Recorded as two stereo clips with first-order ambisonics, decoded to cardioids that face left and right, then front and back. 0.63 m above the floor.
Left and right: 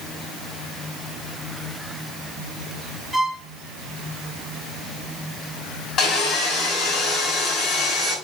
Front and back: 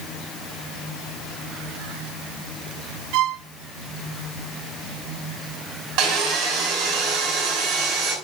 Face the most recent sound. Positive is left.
turn(degrees=145)